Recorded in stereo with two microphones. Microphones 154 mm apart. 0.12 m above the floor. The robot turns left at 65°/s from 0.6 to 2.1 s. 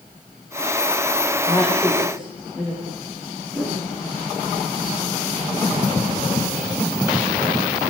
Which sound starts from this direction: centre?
A whoosh, at 3.5 s.